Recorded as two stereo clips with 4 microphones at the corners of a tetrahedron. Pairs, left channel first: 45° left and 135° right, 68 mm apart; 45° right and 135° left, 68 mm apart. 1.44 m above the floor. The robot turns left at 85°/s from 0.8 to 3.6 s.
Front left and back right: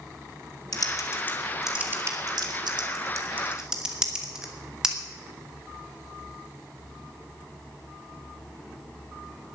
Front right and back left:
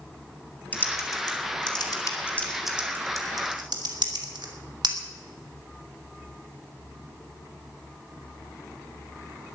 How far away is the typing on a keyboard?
About 2.5 m.